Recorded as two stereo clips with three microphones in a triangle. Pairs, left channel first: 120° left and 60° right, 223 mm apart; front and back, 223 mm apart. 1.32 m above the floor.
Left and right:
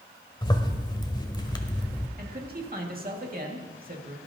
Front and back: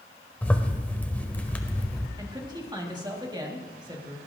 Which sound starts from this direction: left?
A zipper, at 0.4 s.